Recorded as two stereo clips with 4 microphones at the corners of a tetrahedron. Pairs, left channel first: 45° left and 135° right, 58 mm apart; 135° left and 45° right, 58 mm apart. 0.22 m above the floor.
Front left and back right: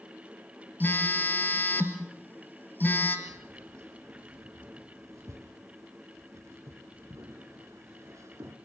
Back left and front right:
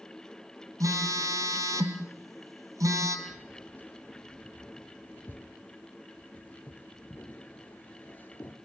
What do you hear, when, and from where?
0.8 s a phone buzzing: 15° right, 1.7 m
3.3 s keys jangling: 165° right, 2 m